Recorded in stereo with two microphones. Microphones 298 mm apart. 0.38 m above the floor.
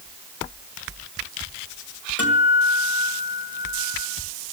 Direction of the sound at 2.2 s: 50° left (ahead or behind).